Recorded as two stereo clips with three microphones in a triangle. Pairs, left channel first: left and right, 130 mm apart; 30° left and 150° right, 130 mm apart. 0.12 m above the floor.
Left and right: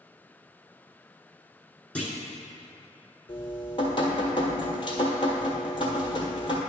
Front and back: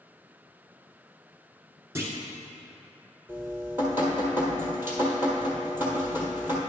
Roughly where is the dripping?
Behind left.